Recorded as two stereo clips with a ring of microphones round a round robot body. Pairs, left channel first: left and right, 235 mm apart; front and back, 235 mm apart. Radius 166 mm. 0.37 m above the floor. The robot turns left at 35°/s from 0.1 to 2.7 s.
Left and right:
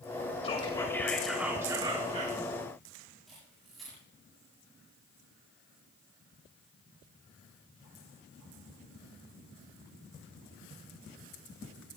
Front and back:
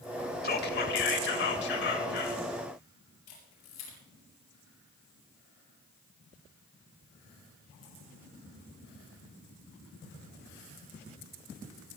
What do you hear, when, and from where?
0.4 s whispering: 30° left, 2 m; by 2.4 s 40° right, 2 m
3.3 s a camera shutter: straight ahead, 6.5 m